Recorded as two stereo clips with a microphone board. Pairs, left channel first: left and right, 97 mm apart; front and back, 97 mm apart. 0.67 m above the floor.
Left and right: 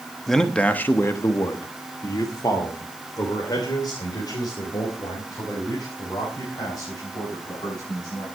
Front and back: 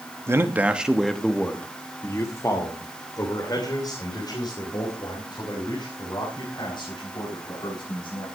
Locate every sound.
0.3 s a man speaking: 175° left, 1.3 m; by 8.2 s 40° left, 7.5 m